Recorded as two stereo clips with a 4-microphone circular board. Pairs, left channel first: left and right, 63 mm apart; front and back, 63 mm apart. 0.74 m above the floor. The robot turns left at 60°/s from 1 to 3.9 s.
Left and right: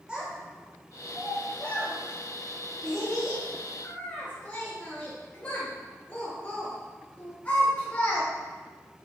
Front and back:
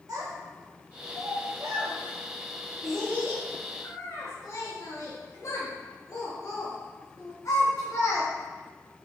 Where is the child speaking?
165° right, 0.7 m; by 8.3 s 25° left, 0.7 m.